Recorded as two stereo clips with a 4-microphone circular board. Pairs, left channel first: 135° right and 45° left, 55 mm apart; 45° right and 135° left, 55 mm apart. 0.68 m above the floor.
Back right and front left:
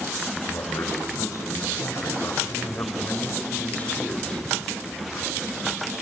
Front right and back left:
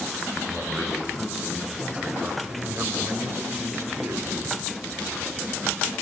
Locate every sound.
0.3 s a man speaking: 135° right, 5.5 m; by 4.5 s 155° left, 3.5 m